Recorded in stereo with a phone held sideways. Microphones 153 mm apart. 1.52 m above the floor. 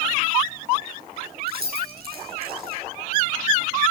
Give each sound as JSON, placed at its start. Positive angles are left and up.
{"t": 1.5, "sound": "keys jangling", "side_deg": -85, "distance_m": 9.5}